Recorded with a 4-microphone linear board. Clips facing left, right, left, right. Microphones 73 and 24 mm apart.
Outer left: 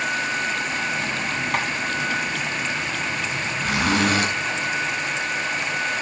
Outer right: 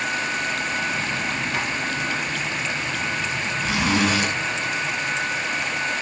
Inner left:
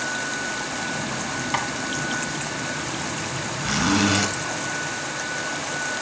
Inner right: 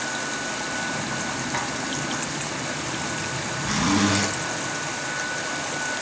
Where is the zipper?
55° left (ahead or behind), 3.5 m.